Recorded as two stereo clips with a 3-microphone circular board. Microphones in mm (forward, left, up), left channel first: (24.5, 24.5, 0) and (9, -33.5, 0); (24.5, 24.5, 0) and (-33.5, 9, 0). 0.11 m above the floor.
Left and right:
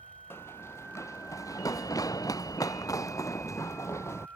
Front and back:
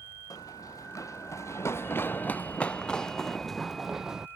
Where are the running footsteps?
25° left; by 4.3 s 115° left.